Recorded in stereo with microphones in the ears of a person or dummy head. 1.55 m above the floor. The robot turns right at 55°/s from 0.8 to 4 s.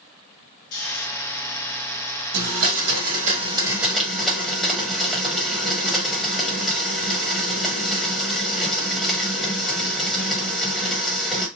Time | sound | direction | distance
0.7 | snoring | 55° left (ahead or behind) | 1.3 m
2.3 | a blender | 90° right | 1.1 m